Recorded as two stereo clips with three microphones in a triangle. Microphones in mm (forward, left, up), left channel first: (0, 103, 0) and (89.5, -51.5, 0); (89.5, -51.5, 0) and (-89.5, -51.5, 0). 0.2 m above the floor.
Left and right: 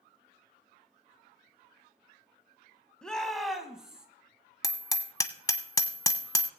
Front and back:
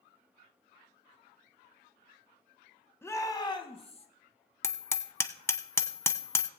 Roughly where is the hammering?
Ahead left.